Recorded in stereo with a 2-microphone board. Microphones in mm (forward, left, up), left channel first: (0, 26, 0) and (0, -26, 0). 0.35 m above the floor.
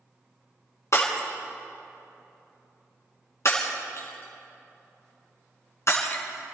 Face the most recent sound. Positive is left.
turn(degrees=55)  # may be behind; listen again after turning